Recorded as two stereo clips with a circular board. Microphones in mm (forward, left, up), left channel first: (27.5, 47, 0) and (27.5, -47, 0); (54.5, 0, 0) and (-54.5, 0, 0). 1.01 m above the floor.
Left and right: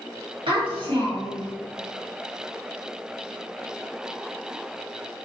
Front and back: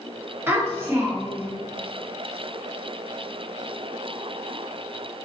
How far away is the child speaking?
About 1.4 m.